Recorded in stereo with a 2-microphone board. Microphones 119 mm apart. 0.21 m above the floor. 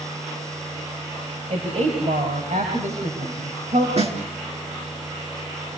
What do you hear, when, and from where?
1.5 s a woman speaking: 75° right (ahead or behind), 4.5 m
4.0 s a snare drum: 60° right (ahead or behind), 3.5 m